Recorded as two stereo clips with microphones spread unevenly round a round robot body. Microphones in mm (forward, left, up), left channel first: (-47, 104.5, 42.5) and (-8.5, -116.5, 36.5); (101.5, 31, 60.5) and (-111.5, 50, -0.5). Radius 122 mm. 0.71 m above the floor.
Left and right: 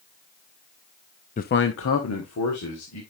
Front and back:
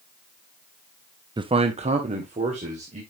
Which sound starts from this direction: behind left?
A man speaking, at 1.4 s.